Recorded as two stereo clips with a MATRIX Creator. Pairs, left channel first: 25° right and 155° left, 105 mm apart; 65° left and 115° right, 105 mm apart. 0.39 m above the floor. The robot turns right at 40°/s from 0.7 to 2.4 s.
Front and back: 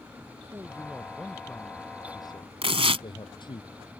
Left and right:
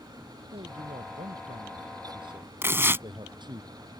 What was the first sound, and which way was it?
A man speaking, 135° right.